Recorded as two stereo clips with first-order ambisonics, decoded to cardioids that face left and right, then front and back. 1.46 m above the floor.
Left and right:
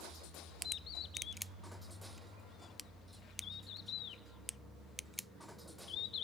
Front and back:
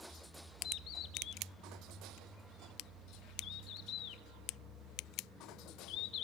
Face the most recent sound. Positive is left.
turn(degrees=35)